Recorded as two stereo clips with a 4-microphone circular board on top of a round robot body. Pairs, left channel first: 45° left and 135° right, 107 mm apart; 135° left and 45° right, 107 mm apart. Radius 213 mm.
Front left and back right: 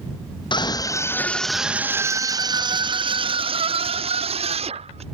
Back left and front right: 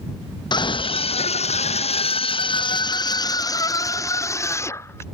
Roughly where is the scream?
Left.